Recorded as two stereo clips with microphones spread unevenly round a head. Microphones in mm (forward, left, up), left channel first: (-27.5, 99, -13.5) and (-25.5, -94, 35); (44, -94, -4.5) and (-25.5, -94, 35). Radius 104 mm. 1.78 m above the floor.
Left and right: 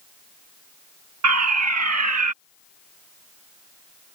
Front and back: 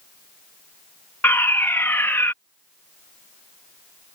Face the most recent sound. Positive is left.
turn(degrees=-65)